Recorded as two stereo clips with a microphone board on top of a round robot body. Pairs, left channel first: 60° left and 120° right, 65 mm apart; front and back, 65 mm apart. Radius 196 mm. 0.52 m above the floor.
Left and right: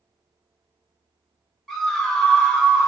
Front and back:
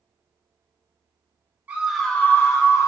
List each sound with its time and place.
1.7 s a scream: 140° left, 0.9 m; by 2.9 s 20° right, 1.4 m